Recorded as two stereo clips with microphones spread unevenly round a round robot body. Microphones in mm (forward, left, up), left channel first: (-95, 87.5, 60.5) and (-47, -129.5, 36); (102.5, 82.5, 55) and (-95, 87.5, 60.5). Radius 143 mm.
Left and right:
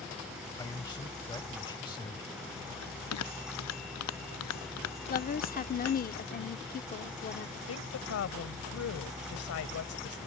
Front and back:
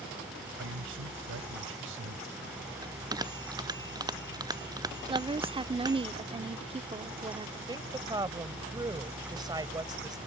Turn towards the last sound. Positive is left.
turn(degrees=110)